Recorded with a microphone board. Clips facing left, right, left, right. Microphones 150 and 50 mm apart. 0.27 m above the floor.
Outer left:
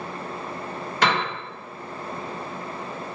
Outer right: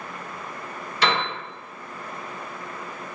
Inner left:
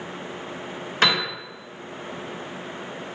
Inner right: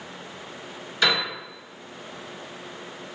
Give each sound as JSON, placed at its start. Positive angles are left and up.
{"t": 1.0, "sound": "a piano", "side_deg": 55, "distance_m": 1.6}